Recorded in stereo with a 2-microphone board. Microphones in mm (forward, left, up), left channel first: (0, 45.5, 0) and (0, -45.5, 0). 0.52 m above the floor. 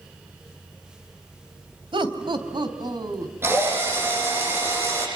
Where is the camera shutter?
No camera shutter in this recording.